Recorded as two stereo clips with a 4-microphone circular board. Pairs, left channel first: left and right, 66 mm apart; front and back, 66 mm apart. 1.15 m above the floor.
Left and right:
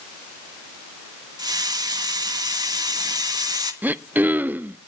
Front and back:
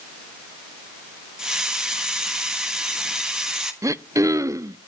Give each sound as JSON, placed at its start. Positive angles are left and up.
{"t": 1.4, "sound": "a hiss", "azimuth_deg": -100, "distance_m": 1.5}
{"t": 3.8, "sound": "throat clearing", "azimuth_deg": -150, "distance_m": 0.5}